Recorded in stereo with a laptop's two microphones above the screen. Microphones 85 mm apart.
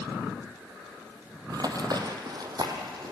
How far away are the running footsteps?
About 2 m.